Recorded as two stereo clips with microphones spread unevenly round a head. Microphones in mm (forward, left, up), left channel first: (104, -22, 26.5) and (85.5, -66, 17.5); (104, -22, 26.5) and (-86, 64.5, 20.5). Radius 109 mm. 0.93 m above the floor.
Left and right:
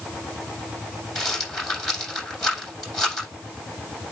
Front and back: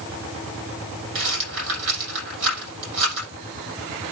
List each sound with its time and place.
1.1 s a rattle: 140° left, 8 m